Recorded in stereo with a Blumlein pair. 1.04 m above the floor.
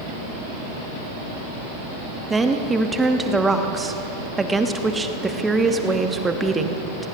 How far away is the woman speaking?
About 1.3 m.